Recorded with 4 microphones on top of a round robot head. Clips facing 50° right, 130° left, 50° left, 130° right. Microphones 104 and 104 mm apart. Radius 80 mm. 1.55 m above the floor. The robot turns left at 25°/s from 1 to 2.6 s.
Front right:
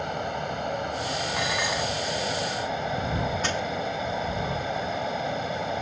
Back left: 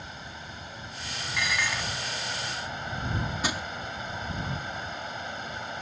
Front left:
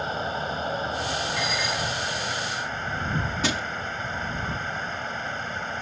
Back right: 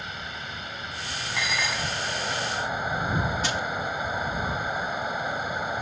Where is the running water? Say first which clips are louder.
Front right 13 dB, front left 9 dB; 10° right; by 5.8 s 50° right.